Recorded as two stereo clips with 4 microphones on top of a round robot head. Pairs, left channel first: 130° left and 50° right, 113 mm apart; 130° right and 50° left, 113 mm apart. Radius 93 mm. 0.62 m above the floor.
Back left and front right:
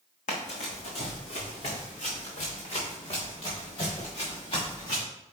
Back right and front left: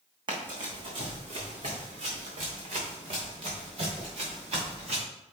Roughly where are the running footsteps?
Left.